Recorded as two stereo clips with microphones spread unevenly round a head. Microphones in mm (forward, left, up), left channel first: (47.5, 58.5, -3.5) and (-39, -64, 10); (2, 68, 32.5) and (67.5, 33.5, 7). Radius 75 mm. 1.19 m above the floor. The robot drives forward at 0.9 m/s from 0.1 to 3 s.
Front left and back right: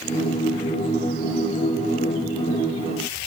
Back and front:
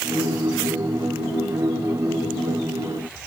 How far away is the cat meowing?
I don't hear a cat meowing.